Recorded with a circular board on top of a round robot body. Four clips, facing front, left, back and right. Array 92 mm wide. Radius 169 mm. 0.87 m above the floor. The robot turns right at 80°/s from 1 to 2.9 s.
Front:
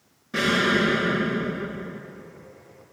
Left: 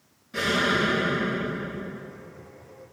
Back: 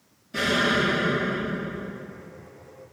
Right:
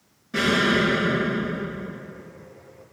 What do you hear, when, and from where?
0.3 s an explosion: 25° right, 5 m; by 2.0 s 55° left, 5 m